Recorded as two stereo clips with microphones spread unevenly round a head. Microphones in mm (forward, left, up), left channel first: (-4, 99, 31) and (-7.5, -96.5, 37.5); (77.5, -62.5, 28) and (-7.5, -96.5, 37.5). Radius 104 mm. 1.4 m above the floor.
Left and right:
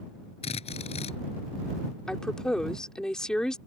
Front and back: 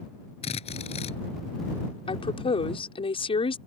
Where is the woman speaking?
Straight ahead.